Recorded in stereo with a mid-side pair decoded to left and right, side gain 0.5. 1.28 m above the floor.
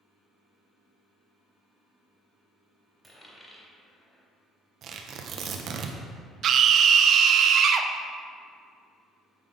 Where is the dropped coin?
Straight ahead, 2.5 m.